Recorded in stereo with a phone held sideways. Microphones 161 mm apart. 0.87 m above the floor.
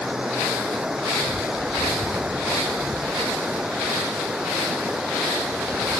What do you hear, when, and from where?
0.0 s running water: 5° right (ahead or behind)